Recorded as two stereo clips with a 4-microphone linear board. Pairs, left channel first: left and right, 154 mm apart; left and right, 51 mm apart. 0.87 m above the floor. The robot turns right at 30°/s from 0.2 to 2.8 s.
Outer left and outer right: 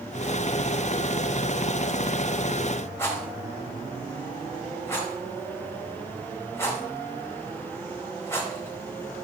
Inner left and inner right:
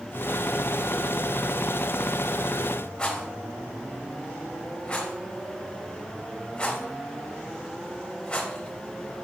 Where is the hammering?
I don't hear hammering.